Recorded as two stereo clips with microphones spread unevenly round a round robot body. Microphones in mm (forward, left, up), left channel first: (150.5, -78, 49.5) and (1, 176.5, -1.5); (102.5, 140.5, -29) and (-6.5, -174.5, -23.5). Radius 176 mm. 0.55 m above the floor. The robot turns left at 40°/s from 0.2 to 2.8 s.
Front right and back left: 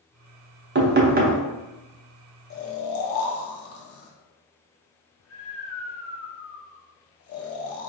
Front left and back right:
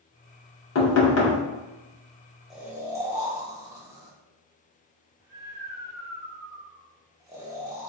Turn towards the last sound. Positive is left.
turn(degrees=-30)